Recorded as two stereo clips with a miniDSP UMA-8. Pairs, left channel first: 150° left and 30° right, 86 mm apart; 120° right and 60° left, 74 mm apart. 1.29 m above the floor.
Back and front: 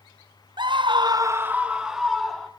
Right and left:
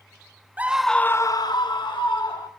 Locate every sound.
0.6 s a scream: 5° right, 0.6 m; by 2.5 s 120° right, 1.4 m